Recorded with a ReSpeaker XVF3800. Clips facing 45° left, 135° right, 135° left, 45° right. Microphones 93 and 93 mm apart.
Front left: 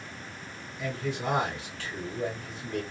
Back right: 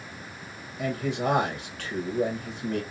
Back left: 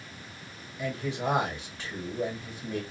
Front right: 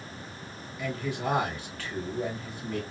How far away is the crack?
I don't hear a crack.